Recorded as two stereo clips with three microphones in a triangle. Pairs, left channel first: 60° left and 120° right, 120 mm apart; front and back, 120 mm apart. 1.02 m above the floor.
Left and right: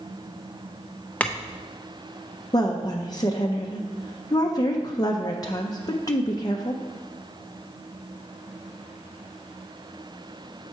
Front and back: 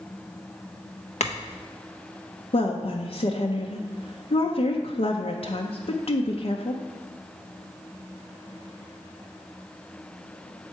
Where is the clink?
20° right, 0.5 m.